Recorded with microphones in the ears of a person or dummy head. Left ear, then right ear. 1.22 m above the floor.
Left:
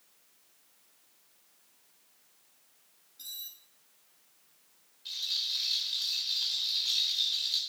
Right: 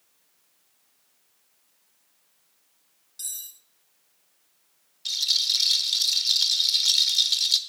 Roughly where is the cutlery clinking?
Right.